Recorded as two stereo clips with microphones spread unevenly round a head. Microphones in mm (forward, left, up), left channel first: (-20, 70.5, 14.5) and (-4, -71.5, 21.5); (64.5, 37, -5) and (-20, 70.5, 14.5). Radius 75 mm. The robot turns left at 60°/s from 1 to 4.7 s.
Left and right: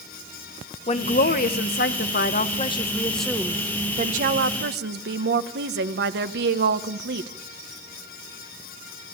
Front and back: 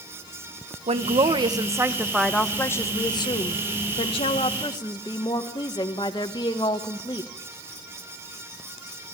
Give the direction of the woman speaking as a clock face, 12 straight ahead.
7 o'clock.